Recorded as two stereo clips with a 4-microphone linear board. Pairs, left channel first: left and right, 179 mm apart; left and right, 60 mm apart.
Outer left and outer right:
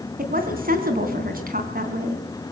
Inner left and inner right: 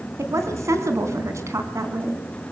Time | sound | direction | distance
0.2 | a woman speaking | 55° right (ahead or behind) | 3.5 m